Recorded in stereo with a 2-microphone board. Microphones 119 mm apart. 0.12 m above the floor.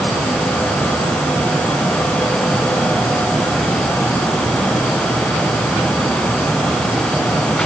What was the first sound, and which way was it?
Only background noise.